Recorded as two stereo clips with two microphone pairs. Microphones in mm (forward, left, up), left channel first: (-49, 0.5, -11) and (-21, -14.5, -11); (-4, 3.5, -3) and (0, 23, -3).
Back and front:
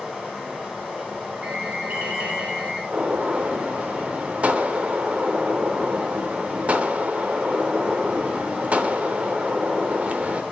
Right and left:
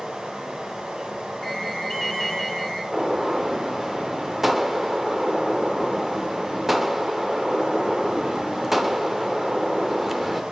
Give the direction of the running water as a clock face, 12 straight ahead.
11 o'clock.